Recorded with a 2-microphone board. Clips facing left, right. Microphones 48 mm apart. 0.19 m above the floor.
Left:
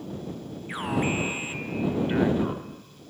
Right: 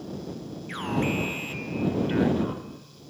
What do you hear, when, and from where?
0.7 s an alarm: 10° left (ahead or behind)